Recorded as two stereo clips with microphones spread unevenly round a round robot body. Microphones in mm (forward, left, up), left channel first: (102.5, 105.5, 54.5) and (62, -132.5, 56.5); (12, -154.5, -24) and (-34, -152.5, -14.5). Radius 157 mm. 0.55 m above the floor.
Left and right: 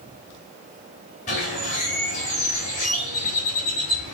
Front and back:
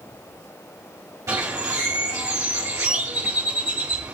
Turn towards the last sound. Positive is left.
turn(degrees=150)